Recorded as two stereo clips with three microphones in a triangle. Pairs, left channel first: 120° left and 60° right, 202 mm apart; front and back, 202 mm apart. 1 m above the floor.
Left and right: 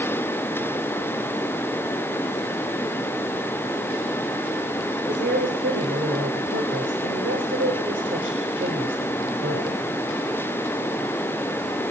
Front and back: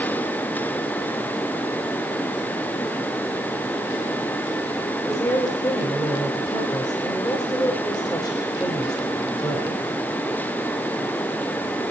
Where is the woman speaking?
70° right, 5 m.